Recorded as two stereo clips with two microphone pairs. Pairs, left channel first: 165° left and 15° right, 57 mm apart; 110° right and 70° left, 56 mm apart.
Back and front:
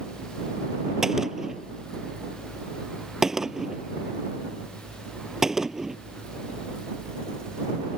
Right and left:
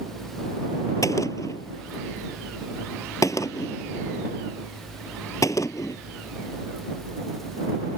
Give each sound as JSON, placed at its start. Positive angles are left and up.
{"t": 1.0, "sound": "a gunshot", "azimuth_deg": -100}